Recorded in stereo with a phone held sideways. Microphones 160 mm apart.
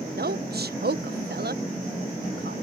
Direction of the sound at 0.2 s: 85° right.